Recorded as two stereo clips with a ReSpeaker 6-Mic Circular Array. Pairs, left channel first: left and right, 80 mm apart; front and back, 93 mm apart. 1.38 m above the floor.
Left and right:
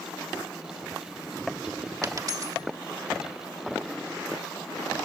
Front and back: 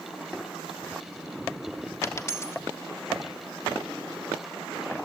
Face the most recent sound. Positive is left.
turn(degrees=-55)